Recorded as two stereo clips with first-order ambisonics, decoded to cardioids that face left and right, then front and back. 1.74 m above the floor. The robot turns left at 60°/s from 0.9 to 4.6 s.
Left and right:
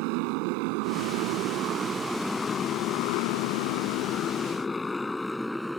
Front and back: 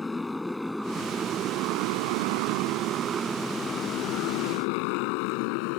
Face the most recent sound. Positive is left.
turn(degrees=0)